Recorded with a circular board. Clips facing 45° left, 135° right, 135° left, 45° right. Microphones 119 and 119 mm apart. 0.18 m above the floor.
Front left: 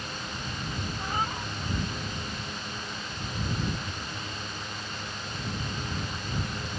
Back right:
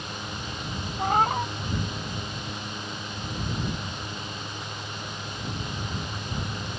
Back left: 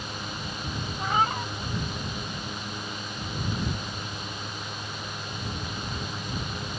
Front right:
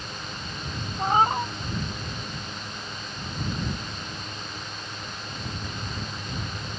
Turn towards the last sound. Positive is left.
turn(degrees=-100)